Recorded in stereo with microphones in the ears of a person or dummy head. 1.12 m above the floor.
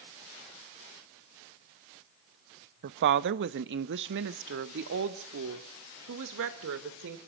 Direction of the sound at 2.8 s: 55° right (ahead or behind).